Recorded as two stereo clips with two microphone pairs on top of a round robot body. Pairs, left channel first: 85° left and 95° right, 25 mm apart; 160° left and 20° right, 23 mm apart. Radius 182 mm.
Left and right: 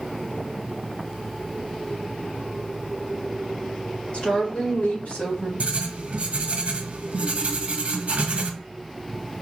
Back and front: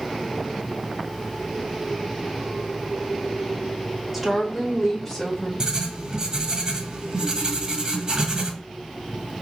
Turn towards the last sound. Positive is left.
turn(degrees=-70)